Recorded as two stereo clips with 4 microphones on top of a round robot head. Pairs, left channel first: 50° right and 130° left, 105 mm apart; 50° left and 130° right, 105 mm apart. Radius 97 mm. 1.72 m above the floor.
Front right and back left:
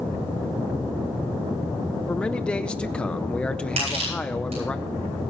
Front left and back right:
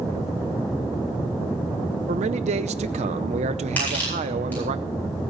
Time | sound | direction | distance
2.1 | a man speaking | 135° right | 0.6 m
3.8 | crushing | 125° left | 8.5 m